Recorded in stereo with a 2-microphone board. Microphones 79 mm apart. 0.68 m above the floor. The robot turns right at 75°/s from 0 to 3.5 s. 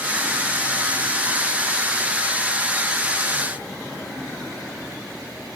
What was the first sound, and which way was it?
Only background noise.